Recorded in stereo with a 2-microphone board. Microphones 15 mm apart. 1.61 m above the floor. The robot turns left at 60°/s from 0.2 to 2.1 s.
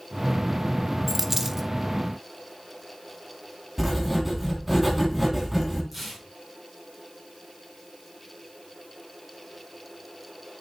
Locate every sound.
1.1 s a dropped coin: 20° right (ahead or behind), 0.9 m
3.8 s writing: 5° right (ahead or behind), 3 m
5.9 s tearing paper: 5° right (ahead or behind), 5 m